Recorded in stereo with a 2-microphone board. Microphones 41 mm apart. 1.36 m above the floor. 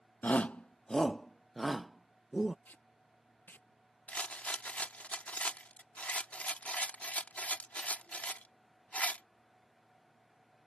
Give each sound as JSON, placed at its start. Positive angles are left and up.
{"t": 0.2, "sound": "a shout", "side_deg": 45}
{"t": 2.6, "sound": "tape being pulled", "side_deg": 55}
{"t": 4.1, "sound": "a rattle", "side_deg": 35}